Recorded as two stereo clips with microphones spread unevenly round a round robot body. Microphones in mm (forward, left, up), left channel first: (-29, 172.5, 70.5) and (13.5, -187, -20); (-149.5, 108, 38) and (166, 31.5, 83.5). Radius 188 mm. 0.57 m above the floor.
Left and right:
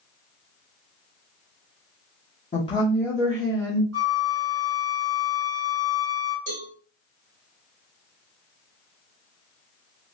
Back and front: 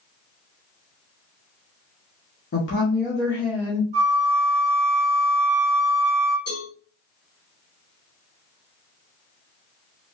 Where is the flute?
85° right, 1.4 m.